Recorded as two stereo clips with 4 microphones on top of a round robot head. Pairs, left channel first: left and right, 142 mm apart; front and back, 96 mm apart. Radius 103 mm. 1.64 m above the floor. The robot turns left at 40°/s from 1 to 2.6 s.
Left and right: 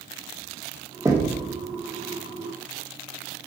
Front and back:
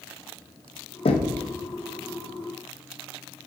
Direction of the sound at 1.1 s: 15° right.